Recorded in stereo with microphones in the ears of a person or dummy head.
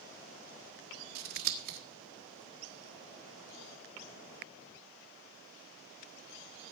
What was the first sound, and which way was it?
Scissors, 50° right (ahead or behind).